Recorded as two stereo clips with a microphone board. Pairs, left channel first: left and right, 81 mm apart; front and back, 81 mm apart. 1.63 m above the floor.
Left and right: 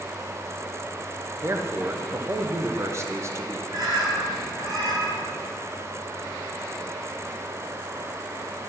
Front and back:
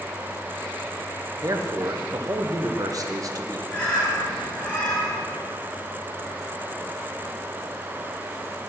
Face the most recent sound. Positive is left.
turn(degrees=-75)